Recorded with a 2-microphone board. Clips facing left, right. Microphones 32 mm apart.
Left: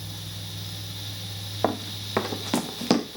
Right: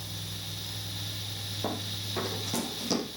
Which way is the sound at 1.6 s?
55° left (ahead or behind).